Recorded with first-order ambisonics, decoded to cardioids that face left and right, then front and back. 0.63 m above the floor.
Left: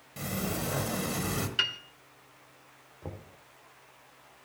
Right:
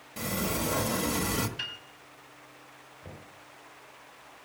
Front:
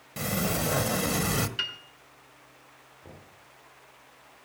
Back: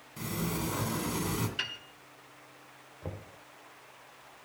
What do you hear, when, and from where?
0.2 s a sliding door: 5° right, 1.3 m
1.6 s a piano: 75° left, 1.3 m
3.0 s knocking: 130° left, 1.7 m